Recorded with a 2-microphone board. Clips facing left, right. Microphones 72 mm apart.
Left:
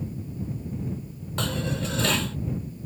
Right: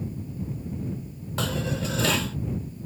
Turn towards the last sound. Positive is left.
turn(degrees=0)  # may be behind; listen again after turning